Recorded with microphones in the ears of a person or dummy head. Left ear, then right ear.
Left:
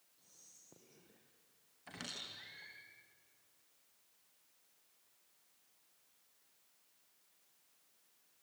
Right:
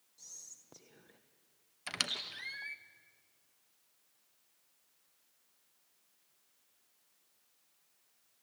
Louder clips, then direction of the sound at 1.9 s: Right 10 dB; 40° right (ahead or behind).